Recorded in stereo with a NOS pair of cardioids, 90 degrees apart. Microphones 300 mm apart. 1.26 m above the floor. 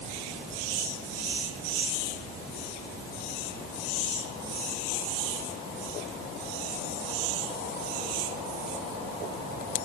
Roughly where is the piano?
I don't hear a piano.